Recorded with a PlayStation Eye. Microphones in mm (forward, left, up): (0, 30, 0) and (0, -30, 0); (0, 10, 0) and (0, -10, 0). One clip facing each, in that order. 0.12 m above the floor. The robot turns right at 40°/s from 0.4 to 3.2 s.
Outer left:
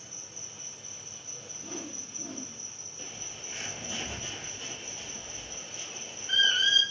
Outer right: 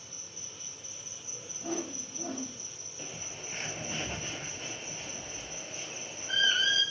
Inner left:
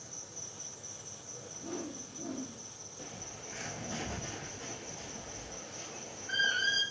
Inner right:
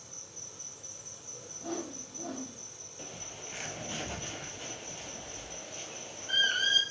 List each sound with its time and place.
0.0 s an insect: 165° left, 4 m; by 6.9 s 80° right, 4 m
1.6 s a whoosh: 95° right, 4 m; by 2.6 s 55° right, 4 m
3.0 s a bird: 35° right (ahead or behind), 1.6 m; by 6.8 s 45° right (ahead or behind), 1.6 m